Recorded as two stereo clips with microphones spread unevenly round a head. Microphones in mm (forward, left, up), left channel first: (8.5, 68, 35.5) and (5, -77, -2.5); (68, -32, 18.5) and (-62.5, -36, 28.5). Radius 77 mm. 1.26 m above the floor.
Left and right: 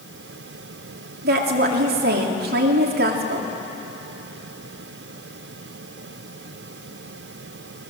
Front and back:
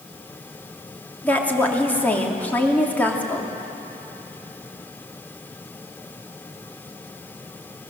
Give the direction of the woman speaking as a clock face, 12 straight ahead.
3 o'clock.